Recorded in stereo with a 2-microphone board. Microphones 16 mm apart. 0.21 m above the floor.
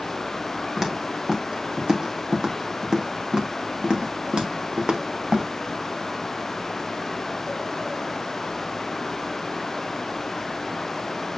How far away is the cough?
I don't hear a cough.